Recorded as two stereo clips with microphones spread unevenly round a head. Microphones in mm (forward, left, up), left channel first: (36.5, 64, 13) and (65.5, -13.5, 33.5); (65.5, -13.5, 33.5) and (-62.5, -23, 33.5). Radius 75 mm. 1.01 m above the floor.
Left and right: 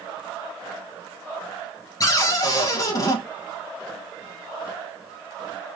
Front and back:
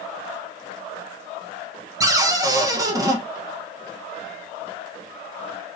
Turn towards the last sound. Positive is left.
turn(degrees=125)